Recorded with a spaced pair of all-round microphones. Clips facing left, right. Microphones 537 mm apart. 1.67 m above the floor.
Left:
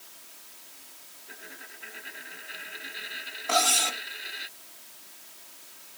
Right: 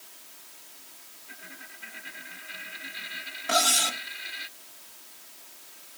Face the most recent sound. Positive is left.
turn(degrees=-40)  # may be behind; listen again after turning